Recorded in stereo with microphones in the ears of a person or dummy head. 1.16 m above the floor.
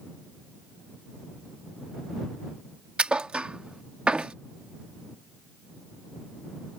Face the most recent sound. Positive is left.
turn(degrees=-5)  # may be behind; listen again after turning